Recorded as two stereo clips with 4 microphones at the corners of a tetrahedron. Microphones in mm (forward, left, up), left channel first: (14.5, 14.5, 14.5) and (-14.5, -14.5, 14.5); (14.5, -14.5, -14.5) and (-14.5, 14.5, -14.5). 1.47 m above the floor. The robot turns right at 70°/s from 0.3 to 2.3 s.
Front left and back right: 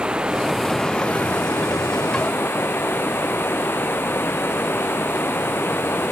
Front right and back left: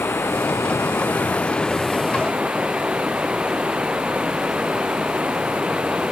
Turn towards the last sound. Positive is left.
turn(degrees=70)